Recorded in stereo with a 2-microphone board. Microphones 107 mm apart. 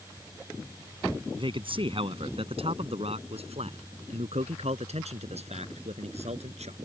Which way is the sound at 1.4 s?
50° right (ahead or behind).